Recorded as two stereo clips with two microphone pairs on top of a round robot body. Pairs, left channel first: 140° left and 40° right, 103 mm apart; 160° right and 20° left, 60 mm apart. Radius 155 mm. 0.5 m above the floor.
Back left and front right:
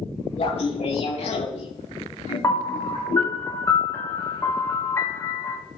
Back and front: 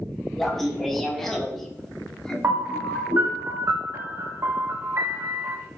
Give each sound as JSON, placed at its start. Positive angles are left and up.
{"t": 0.4, "sound": "laughter", "azimuth_deg": 120, "distance_m": 4.0}
{"t": 2.4, "sound": "a piano", "azimuth_deg": 70, "distance_m": 2.5}